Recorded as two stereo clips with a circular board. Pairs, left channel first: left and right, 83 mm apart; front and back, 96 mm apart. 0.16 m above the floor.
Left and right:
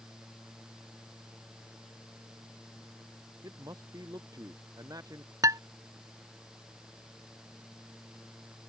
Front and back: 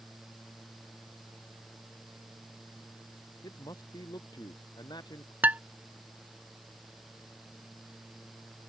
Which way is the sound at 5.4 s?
110° right.